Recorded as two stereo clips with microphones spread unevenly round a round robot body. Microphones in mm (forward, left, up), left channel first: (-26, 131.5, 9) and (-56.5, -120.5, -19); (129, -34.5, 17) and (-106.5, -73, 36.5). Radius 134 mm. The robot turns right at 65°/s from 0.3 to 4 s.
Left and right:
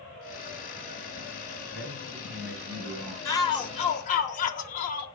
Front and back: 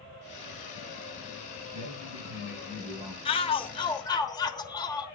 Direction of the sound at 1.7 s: 165° left.